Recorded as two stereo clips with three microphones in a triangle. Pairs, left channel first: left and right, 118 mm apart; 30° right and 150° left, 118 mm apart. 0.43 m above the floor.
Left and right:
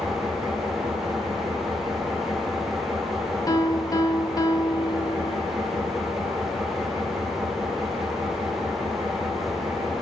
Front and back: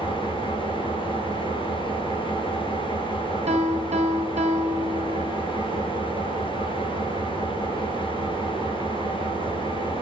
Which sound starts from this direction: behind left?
A piano, at 3.5 s.